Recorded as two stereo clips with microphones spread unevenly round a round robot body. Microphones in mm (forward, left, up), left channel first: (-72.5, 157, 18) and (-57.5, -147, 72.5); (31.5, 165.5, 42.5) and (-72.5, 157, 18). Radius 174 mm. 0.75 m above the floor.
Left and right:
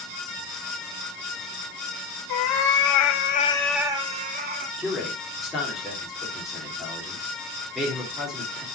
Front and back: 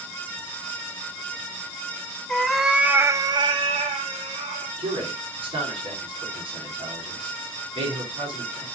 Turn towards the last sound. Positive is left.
turn(degrees=180)